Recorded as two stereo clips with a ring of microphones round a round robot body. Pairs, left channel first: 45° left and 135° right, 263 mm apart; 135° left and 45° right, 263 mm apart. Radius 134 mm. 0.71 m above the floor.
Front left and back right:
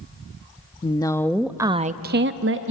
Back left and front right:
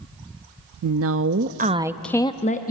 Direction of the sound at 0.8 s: 25° right.